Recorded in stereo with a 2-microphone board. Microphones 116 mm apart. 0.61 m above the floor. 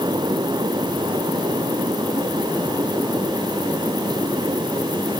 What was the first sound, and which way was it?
Only background noise.